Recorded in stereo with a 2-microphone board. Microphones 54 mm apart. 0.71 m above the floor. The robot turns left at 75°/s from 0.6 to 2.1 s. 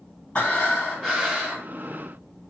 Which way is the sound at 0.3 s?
45° left.